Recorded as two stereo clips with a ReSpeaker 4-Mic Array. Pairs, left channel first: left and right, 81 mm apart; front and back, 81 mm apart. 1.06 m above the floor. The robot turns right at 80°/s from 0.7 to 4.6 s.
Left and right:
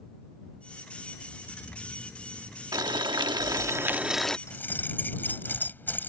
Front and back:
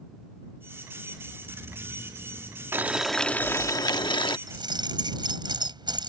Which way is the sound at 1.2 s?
120° left.